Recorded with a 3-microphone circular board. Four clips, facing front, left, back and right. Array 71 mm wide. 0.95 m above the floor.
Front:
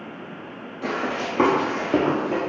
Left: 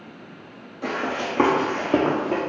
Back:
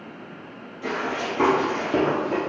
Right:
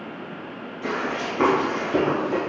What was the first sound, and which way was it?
Running footsteps, 45° left.